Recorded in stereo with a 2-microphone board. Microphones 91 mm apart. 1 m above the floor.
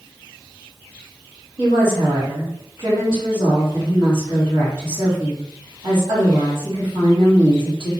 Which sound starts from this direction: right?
A woman speaking, at 1.6 s.